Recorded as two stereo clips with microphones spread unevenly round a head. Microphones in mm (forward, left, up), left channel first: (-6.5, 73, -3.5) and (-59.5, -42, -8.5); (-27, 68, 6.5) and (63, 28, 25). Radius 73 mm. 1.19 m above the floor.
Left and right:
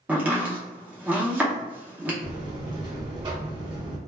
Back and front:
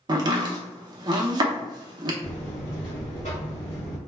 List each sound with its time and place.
0.1 s chopping: 45° right, 0.6 m
2.2 s a buzzer: 155° right, 1.4 m